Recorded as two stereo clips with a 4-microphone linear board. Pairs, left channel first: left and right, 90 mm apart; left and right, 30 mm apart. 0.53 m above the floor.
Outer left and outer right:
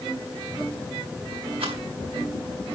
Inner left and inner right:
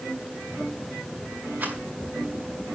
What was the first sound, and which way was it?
A rattle, 75° right (ahead or behind).